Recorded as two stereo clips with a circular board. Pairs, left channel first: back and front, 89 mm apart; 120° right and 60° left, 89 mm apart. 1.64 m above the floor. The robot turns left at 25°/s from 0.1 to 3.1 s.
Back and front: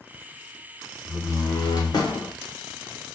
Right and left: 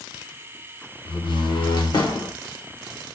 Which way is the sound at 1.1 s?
125° right.